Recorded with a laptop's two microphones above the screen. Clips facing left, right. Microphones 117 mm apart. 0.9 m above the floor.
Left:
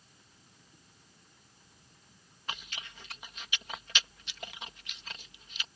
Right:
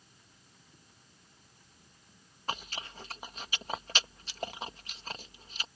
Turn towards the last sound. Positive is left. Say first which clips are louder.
# right 5 dB
turn(degrees=-40)  # may be behind; listen again after turning